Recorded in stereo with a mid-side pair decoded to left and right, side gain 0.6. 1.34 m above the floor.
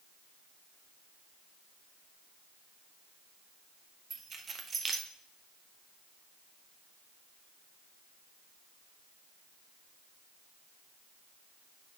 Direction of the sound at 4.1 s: 35° right.